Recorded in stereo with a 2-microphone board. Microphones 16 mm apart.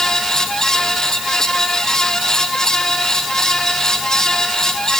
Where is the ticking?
I don't hear ticking.